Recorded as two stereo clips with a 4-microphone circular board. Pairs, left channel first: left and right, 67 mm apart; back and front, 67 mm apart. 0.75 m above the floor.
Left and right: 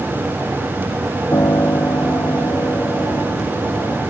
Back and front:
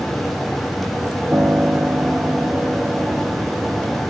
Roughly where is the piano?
Ahead left.